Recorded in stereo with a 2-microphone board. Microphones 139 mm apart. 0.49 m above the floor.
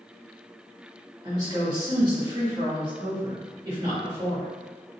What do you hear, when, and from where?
1.2 s a woman speaking: 30° right (ahead or behind), 1.6 m